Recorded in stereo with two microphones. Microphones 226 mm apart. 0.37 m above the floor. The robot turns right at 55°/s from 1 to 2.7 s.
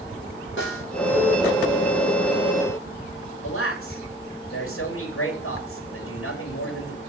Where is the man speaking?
80° left, 7 m.